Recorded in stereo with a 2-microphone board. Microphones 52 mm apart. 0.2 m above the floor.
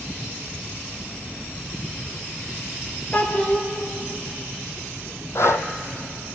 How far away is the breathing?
About 1.2 m.